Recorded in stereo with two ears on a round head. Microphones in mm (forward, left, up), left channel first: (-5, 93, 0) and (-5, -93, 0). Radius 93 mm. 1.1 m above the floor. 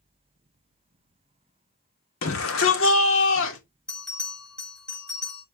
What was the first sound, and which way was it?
A shout, 75° left (ahead or behind).